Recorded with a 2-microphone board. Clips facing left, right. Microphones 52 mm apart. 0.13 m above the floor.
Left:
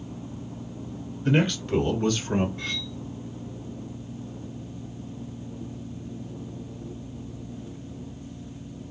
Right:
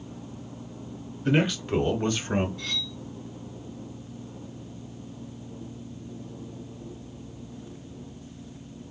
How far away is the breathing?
I don't hear breathing.